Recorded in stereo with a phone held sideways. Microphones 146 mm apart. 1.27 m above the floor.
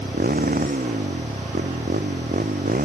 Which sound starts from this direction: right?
A motorcycle, at 0.0 s.